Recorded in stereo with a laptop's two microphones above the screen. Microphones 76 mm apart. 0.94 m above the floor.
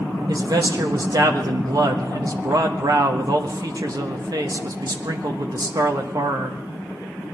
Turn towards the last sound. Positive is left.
turn(degrees=-60)  # may be behind; listen again after turning